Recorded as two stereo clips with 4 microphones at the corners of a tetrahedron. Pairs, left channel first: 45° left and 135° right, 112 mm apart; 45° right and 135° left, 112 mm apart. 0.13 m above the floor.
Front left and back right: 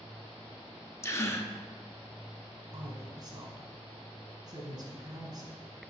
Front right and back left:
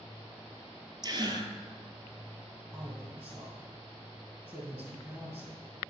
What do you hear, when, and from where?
1.0 s a gasp: 105° left, 0.6 m
2.7 s a woman speaking: 160° right, 1.5 m